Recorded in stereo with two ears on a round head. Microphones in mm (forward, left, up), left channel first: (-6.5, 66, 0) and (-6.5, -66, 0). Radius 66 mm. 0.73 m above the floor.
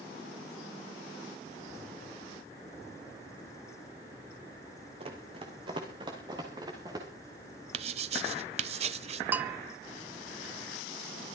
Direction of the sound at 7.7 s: 45° right (ahead or behind).